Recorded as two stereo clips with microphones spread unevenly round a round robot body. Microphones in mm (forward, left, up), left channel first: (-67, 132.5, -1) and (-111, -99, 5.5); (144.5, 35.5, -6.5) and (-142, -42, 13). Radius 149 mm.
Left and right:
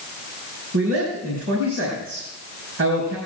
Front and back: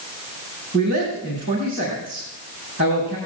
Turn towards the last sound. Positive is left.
turn(degrees=-100)